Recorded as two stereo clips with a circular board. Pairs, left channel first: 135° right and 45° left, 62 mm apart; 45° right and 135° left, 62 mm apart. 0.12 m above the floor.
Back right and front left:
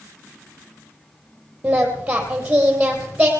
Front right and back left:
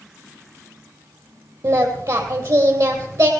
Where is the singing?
115° left, 3.5 m.